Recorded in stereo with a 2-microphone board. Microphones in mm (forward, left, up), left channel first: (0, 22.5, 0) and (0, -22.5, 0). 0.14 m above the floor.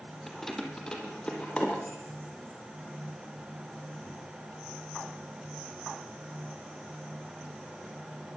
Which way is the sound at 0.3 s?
5° left (ahead or behind).